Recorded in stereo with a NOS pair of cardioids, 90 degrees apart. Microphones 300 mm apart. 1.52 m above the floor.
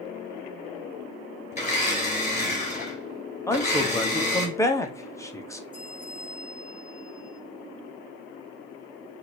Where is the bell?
15° right, 2.5 m.